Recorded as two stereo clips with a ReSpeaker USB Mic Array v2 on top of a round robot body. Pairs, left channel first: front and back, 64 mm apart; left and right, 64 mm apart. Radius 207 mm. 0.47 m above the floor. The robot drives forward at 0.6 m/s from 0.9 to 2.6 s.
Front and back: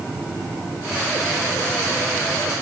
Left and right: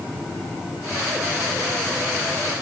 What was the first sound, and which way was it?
Only background noise.